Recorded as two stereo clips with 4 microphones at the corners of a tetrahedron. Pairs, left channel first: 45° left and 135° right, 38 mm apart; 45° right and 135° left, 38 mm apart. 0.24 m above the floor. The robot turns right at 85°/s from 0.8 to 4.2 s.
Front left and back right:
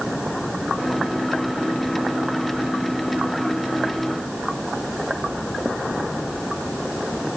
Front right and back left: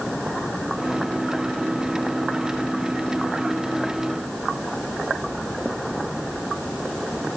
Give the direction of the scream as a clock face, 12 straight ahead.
I don't hear a scream.